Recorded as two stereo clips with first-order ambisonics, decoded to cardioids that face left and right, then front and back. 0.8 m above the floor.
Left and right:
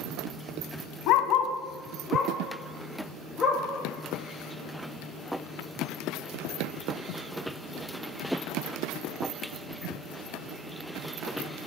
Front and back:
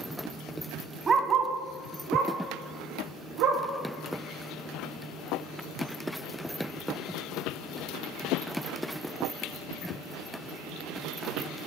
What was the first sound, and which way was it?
A dog barking, 110° left.